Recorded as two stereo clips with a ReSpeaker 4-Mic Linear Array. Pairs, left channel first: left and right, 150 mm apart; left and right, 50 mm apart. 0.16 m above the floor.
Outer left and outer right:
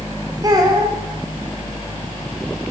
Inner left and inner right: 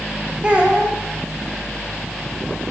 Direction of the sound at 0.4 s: 25° right (ahead or behind).